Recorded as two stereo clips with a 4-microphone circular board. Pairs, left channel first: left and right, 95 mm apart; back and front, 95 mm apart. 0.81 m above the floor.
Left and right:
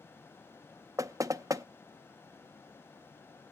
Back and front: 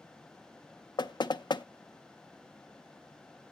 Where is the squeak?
No squeak in this recording.